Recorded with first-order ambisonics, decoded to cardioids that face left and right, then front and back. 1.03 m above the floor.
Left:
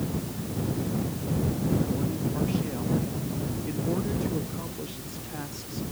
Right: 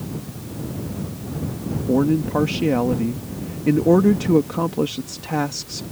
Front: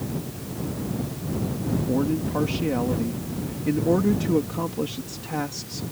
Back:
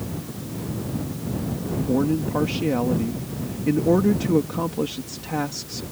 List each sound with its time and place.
1.9 s a man speaking: 100° right